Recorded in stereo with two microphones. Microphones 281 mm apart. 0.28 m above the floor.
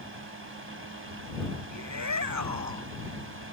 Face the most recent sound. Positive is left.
turn(degrees=-75)  # may be behind; listen again after turning